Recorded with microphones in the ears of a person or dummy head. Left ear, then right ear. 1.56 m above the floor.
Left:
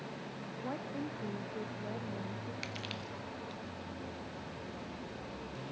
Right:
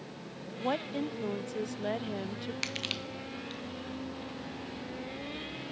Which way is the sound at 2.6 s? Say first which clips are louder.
Right 9 dB; 20° right (ahead or behind).